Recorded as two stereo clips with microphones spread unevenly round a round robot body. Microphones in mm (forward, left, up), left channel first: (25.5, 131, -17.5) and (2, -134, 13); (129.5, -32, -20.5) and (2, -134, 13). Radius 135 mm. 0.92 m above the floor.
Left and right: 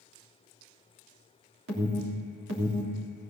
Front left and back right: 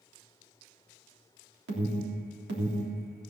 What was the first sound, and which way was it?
An alarm, 145° right.